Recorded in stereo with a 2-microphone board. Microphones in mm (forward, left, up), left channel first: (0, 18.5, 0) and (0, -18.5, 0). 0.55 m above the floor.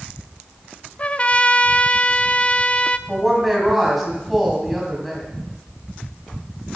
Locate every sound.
1.0 s a trumpet: 30° left (ahead or behind), 0.5 m
3.1 s a woman speaking: centre (ahead or behind), 3.5 m